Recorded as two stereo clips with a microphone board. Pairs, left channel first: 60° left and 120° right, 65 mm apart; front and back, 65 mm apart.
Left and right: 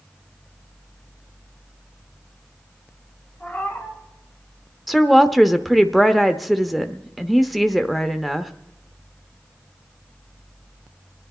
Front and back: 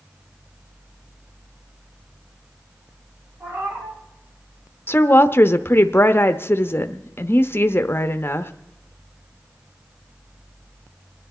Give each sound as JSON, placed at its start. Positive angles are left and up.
{"t": 3.4, "sound": "a cat meowing", "azimuth_deg": 125, "distance_m": 3.0}
{"t": 4.9, "sound": "a woman speaking", "azimuth_deg": -30, "distance_m": 0.7}